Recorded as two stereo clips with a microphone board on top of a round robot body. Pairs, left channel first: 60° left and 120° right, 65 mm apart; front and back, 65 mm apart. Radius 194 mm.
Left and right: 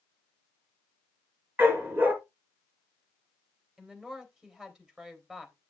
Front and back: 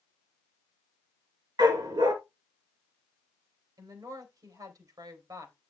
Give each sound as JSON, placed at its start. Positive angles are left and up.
{"t": 1.6, "sound": "a dog barking", "azimuth_deg": 180, "distance_m": 2.5}
{"t": 3.8, "sound": "a woman speaking", "azimuth_deg": 160, "distance_m": 3.5}